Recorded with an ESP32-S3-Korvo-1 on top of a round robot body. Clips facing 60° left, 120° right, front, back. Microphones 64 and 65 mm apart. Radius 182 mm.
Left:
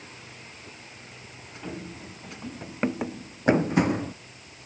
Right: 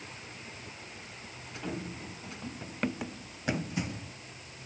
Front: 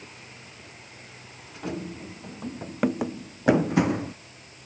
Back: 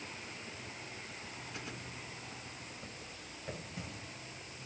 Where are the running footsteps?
30° right; by 4.1 s 30° left.